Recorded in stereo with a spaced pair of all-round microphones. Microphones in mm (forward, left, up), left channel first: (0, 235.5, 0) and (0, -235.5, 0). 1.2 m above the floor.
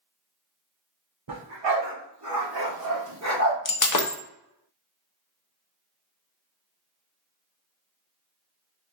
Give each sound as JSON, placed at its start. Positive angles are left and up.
{"t": 1.3, "sound": "a dog barking", "side_deg": -65, "distance_m": 1.6}
{"t": 3.6, "sound": "breaking glass", "side_deg": 40, "distance_m": 0.6}